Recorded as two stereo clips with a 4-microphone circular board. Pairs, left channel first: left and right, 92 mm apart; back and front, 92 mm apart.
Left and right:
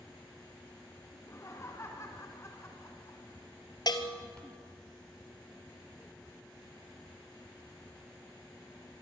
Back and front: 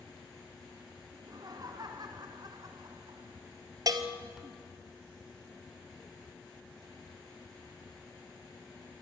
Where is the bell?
45° left, 1.6 m.